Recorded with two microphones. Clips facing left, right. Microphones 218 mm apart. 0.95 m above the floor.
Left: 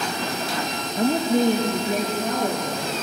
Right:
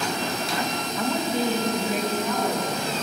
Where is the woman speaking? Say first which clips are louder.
Left 7 dB; 35° left (ahead or behind), 0.8 m; by 2.9 s 50° left (ahead or behind), 1.7 m.